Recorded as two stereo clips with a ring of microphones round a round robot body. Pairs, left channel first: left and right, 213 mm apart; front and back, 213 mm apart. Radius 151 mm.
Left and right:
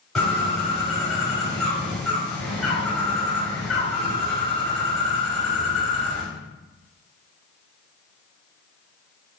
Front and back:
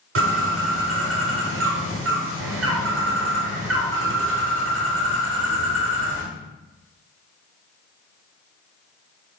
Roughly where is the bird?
Behind.